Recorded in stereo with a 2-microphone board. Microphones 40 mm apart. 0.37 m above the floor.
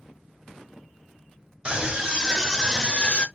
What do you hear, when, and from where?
1.6 s a scream: 20° right (ahead or behind), 1.1 m; by 3.3 s 35° left (ahead or behind), 1.0 m